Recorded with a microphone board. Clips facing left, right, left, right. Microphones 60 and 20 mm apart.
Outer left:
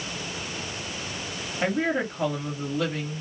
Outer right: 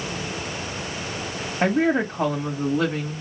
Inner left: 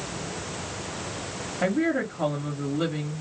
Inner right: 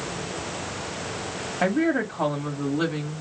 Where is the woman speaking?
50° right (ahead or behind), 1.2 m.